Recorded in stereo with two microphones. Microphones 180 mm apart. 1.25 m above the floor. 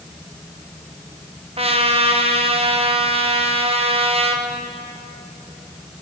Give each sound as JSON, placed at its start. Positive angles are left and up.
{"t": 1.6, "sound": "a trumpet", "side_deg": -35, "distance_m": 1.1}